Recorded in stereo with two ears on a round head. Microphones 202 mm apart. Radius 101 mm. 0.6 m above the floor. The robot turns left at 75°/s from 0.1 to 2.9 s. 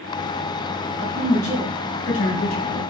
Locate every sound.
1.0 s a woman speaking: 160° right, 3 m; by 2.8 s 65° left, 3 m